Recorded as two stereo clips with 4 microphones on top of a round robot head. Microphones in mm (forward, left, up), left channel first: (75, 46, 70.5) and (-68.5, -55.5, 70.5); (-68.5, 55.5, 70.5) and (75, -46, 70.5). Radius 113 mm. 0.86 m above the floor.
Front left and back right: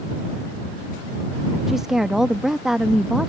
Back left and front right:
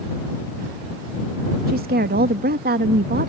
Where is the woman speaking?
55° right.